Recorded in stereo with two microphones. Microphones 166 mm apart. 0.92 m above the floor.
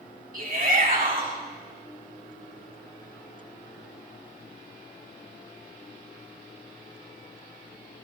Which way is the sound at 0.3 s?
60° right (ahead or behind).